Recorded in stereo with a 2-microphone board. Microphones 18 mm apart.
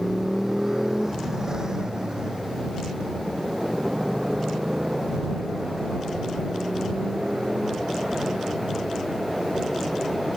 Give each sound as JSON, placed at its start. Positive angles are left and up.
{"t": 0.0, "sound": "a motorcycle", "side_deg": -20}